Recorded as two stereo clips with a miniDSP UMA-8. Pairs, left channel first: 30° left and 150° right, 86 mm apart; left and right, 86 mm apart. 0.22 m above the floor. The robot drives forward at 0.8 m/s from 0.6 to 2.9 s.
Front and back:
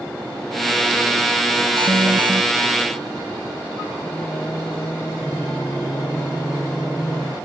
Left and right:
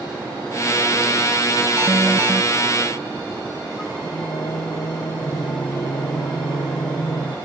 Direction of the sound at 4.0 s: 90° left.